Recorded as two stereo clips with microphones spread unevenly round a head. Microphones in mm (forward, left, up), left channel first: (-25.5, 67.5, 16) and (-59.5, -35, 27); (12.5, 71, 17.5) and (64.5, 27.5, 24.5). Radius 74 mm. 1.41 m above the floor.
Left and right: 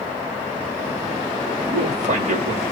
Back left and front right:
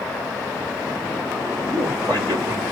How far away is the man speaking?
About 1.5 m.